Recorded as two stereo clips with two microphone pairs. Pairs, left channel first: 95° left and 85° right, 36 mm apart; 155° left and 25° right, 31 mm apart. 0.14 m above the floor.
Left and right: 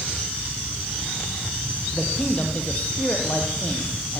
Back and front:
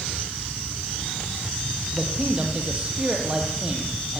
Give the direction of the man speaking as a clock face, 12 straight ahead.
11 o'clock.